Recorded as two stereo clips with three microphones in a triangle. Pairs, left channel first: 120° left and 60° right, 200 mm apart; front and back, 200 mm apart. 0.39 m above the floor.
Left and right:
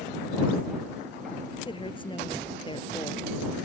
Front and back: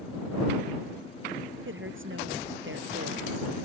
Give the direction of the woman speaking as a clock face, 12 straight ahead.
6 o'clock.